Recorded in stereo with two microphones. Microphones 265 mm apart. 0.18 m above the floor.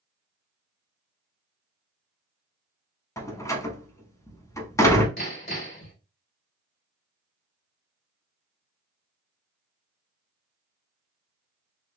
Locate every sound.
3.2 s a door slam: 10° left (ahead or behind), 0.8 m
5.2 s hammering: 45° left (ahead or behind), 2.5 m